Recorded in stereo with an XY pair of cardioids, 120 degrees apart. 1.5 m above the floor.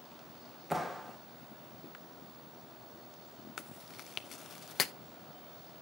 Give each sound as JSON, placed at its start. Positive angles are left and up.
{"t": 0.7, "sound": "a clap", "azimuth_deg": -5, "distance_m": 1.3}
{"t": 3.6, "sound": "chewing", "azimuth_deg": 45, "distance_m": 0.6}